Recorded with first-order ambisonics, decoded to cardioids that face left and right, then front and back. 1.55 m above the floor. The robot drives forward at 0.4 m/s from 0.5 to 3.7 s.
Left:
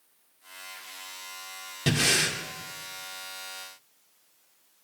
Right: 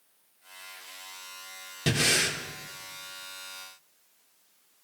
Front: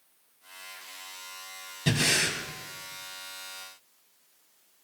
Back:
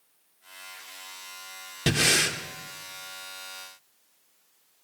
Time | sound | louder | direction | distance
1.9 | breathing | left 1 dB, back 3 dB | straight behind | 1.3 m